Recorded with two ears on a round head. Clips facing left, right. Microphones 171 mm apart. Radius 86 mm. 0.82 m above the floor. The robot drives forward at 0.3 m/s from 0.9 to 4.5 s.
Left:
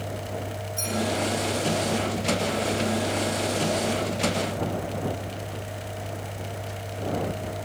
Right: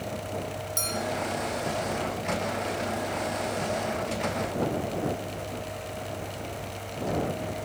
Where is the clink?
80° right, 6.5 m.